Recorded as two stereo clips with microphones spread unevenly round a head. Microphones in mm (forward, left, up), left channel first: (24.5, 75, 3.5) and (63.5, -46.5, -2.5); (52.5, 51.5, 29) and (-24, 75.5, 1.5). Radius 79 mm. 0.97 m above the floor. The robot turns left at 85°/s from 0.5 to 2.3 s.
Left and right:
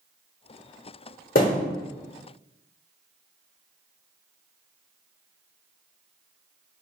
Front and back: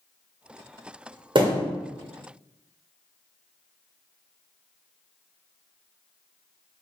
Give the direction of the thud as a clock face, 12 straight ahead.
7 o'clock.